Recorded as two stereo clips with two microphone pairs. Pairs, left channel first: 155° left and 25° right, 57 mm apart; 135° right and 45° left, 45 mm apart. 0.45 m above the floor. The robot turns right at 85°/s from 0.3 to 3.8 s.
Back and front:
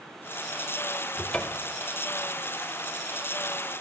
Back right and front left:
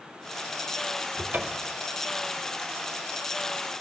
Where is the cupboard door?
65° left, 0.9 m; by 1.8 s 120° left, 0.9 m.